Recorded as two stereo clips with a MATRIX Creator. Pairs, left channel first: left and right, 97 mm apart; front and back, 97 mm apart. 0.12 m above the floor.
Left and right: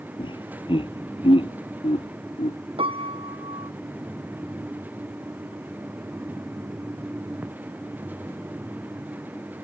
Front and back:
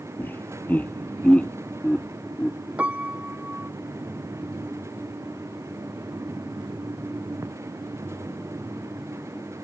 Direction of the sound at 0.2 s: 65° left.